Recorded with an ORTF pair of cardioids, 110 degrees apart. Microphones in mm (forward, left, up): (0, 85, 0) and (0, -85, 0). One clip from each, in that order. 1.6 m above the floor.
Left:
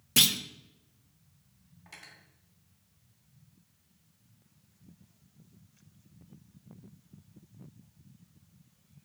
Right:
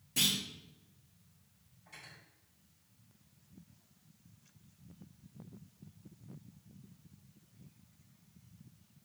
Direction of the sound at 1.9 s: 70° left.